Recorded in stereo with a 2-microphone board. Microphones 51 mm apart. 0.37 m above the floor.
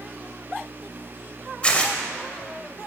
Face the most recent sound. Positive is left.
turn(degrees=25)  # may be behind; listen again after turning